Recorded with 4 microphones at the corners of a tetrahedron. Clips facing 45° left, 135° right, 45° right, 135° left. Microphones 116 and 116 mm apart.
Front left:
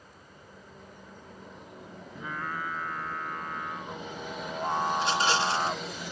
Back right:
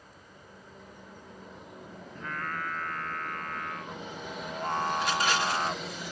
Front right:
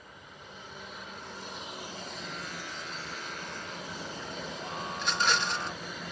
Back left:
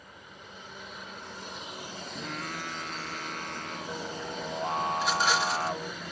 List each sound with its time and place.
2.1 s singing: 125° left
4.9 s a rattle: 50° left